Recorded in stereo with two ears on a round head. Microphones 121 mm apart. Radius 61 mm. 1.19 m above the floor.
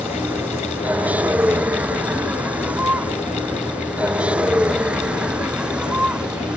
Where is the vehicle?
10° right (ahead or behind).